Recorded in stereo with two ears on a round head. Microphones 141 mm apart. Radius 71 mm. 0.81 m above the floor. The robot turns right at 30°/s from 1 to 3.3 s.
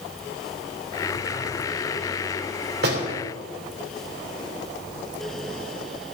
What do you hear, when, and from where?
2.8 s a door slam: 65° right (ahead or behind), 3 m; by 3.1 s 75° right (ahead or behind), 3 m